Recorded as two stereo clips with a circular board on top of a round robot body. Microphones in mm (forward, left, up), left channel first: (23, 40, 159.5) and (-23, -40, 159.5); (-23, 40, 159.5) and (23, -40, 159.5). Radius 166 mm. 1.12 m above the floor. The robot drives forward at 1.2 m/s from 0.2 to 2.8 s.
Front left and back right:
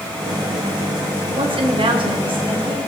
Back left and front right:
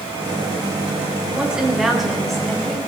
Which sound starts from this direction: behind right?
A woman speaking, at 1.4 s.